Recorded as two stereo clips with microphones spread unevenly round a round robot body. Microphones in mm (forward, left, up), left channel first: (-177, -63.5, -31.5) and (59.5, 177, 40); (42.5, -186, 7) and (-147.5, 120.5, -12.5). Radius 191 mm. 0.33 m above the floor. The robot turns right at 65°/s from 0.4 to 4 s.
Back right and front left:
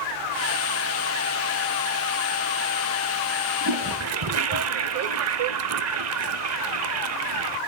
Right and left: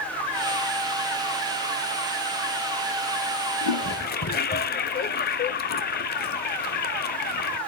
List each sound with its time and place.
3.6 s a toilet flushing: 25° right, 0.7 m; by 7.6 s straight ahead, 0.7 m